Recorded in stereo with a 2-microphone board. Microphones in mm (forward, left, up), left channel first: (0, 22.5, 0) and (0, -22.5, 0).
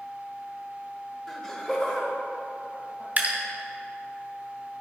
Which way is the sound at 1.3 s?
5° left (ahead or behind).